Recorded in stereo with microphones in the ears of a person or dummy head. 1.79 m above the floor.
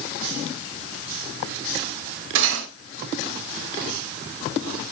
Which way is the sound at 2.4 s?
70° right (ahead or behind).